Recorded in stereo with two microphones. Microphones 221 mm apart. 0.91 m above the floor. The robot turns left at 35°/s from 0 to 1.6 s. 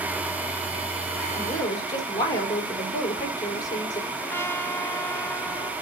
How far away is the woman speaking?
About 3.5 m.